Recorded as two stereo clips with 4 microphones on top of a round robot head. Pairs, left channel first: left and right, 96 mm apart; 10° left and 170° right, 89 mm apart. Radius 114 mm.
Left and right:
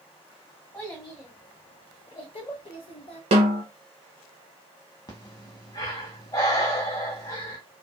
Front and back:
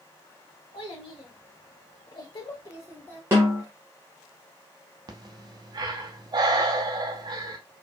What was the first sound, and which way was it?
A child speaking, 30° left.